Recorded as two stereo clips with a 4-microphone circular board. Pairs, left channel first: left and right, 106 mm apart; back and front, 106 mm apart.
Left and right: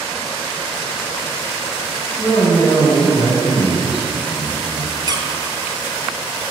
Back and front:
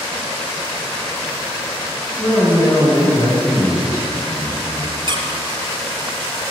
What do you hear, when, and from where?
2.2 s a man speaking: 120° left, 3 m
5.1 s a squeak: 40° right, 0.8 m